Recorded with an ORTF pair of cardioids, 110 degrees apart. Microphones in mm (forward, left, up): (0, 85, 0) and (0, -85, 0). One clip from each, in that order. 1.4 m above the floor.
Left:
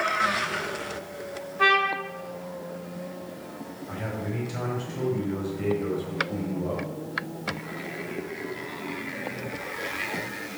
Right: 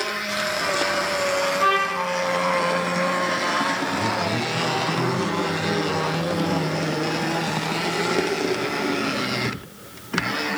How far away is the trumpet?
About 1.9 m.